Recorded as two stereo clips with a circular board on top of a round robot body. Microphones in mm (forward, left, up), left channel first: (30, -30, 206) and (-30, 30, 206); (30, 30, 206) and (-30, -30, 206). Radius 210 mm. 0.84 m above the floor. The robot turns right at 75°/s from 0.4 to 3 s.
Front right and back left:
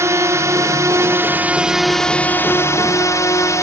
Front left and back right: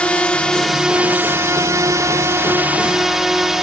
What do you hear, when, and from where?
0.0 s a drone: 115° left; by 3.6 s 50° right